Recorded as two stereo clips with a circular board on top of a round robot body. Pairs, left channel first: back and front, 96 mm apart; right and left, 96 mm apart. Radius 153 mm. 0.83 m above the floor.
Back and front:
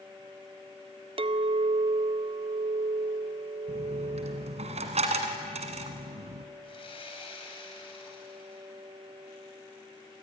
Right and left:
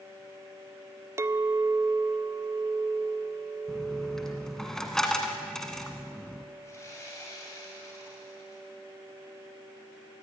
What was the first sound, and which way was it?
A clink, 25° left.